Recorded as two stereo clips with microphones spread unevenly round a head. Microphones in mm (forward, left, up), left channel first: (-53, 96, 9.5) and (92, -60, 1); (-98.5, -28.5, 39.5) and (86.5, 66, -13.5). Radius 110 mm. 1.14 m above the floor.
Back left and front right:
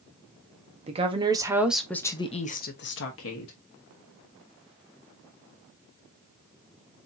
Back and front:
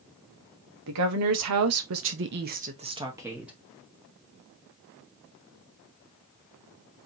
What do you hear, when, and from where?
0.9 s a woman speaking: 15° left, 1.4 m; by 3.5 s 115° left, 1.3 m